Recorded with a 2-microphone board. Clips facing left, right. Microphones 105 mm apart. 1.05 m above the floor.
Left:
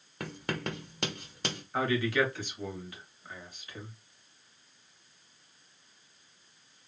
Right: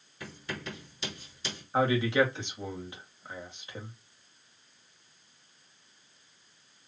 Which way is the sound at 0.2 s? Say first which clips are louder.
Left 5 dB; 60° left (ahead or behind).